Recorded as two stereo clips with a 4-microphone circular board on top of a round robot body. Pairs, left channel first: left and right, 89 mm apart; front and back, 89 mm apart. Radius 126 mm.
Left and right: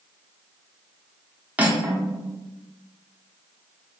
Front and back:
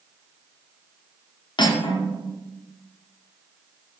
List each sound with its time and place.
1.6 s cutlery clinking: 15° right, 0.7 m